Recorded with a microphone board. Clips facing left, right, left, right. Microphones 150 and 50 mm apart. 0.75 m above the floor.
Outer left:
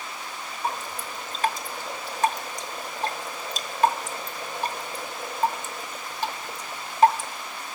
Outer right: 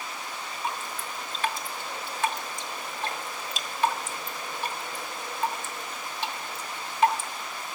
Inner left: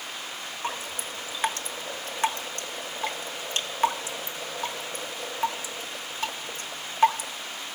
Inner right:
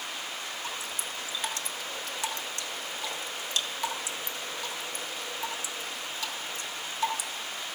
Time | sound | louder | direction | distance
0.6 | dripping | outer left 4 dB, inner left 3 dB | 40° left (ahead or behind) | 1.1 m